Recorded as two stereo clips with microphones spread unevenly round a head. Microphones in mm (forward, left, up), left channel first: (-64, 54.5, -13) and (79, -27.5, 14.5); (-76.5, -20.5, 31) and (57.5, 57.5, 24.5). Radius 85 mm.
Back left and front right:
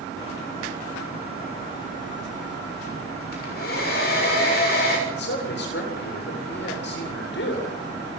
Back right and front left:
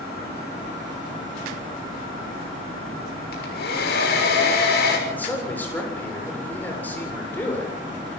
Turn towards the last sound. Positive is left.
turn(degrees=130)